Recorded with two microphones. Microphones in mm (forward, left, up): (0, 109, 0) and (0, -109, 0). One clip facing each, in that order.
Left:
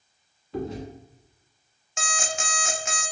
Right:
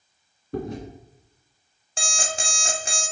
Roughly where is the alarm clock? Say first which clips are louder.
Right 1 dB; right.